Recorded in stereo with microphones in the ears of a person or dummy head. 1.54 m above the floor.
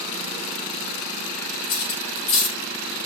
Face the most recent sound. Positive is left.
turn(degrees=45)  # may be behind; listen again after turning